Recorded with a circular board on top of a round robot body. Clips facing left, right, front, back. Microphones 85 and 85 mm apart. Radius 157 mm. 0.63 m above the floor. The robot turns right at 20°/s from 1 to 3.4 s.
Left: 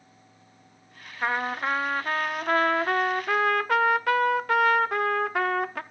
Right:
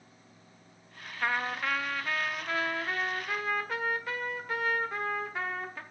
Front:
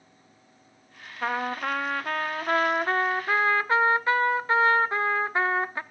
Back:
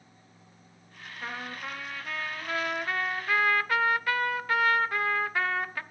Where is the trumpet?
20° left, 0.8 m; by 5.8 s 65° left, 0.8 m.